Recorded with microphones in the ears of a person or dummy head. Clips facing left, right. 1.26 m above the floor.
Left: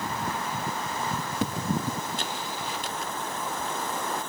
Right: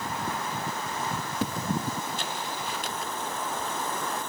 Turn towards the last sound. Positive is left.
No sound to turn to.